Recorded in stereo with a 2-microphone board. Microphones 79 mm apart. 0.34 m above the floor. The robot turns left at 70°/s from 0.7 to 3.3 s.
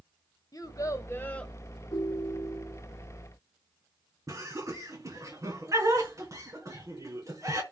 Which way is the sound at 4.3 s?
40° right (ahead or behind).